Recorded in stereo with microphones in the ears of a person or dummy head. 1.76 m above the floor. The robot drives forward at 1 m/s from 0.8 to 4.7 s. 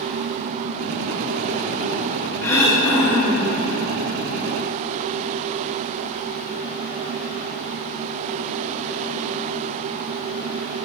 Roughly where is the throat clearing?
Centre.